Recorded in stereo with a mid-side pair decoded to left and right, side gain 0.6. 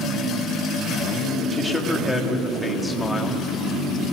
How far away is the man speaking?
About 3 m.